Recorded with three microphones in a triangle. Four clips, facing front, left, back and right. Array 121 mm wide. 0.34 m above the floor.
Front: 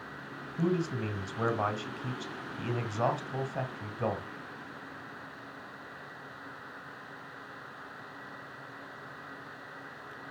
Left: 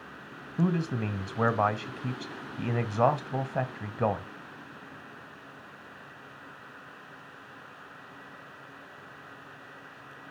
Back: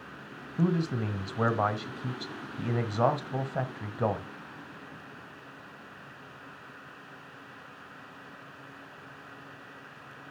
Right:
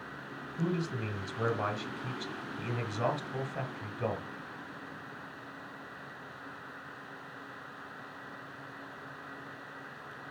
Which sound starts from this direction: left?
A man speaking, at 0.6 s.